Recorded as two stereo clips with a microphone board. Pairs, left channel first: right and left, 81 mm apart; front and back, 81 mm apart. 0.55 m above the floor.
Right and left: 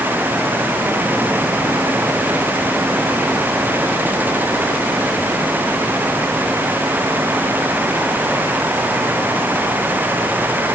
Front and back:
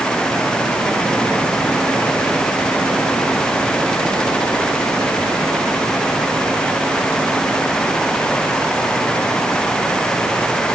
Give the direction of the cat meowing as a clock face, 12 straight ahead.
No cat meowing in this recording.